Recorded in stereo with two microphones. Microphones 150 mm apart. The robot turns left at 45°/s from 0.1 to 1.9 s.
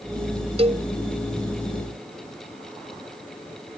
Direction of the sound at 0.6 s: 45° right (ahead or behind).